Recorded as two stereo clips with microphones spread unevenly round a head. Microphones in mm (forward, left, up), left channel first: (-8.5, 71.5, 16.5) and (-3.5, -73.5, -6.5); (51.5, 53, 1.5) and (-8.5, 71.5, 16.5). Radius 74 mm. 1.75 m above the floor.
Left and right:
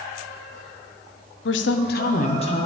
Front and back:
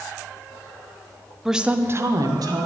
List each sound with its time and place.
1.4 s a woman speaking: 75° left, 0.9 m; by 2.7 s 150° left, 1.3 m